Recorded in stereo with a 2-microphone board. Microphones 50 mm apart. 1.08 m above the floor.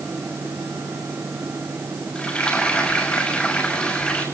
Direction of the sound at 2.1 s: 25° left (ahead or behind).